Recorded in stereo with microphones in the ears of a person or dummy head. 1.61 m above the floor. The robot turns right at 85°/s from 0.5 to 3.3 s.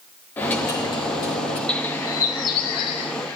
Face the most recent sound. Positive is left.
turn(degrees=15)  # may be behind; listen again after turning